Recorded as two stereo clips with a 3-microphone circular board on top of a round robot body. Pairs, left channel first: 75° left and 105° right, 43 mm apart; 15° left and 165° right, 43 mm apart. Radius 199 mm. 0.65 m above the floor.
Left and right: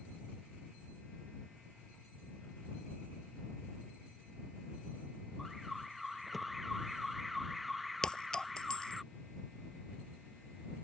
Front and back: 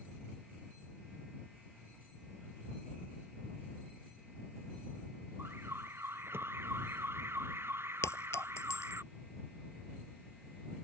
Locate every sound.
5.4 s an alarm: 165° left
8.0 s a clink: straight ahead